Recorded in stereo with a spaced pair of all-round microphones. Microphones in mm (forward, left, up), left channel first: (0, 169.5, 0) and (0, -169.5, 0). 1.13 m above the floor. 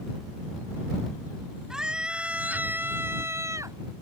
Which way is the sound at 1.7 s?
Centre (ahead or behind).